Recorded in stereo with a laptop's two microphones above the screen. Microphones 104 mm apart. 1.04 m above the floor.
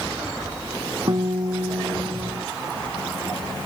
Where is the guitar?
45° right (ahead or behind).